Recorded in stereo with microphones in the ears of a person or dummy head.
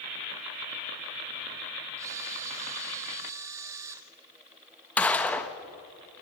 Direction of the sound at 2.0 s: 20° right (ahead or behind).